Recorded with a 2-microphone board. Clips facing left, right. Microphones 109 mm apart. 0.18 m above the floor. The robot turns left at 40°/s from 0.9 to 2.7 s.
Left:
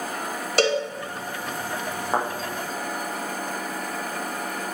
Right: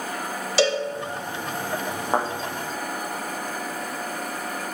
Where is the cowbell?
55° left (ahead or behind), 1.3 m.